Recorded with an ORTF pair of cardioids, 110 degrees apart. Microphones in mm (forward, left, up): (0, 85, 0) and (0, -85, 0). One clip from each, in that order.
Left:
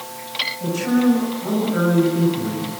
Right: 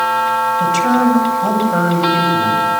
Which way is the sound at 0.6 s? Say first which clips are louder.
Right 8 dB; 70° right.